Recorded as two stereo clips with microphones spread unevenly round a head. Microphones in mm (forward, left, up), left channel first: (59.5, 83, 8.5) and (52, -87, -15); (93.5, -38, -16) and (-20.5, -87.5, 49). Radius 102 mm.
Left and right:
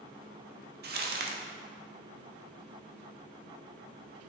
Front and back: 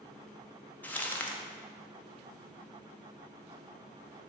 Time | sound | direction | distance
0.8 | crumpling | 65° right | 1.1 m